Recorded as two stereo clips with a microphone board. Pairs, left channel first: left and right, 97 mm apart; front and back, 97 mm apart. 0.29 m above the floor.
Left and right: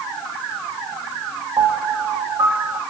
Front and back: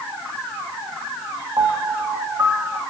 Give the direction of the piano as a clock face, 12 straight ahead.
4 o'clock.